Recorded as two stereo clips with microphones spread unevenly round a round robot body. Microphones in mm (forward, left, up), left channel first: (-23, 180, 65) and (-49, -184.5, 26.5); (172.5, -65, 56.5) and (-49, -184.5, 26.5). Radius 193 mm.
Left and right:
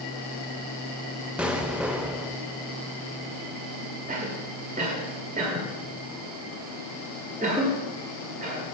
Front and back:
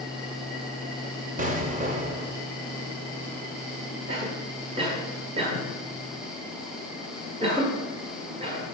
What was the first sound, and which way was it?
An explosion, 175° right.